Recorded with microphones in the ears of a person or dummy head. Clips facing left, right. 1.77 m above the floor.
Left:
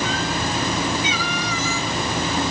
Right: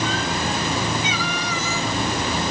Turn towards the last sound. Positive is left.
No sound to turn to.